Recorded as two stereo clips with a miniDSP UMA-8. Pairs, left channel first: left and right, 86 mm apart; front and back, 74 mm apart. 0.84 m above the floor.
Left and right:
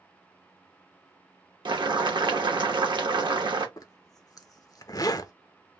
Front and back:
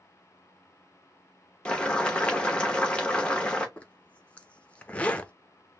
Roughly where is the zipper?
Ahead left.